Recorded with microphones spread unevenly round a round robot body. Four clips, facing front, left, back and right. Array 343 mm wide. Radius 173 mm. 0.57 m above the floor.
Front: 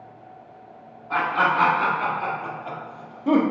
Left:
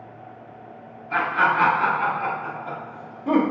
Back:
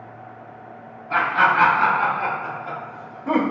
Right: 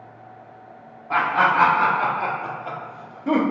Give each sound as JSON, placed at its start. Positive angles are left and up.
{"t": 1.1, "sound": "laughter", "azimuth_deg": -85, "distance_m": 1.6}